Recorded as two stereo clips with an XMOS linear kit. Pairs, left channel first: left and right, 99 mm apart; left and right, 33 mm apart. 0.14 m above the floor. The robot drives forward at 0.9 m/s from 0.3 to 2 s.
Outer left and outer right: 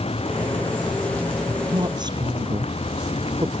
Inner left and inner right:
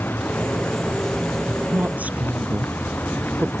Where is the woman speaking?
50° right (ahead or behind); by 3.5 s 45° right (ahead or behind).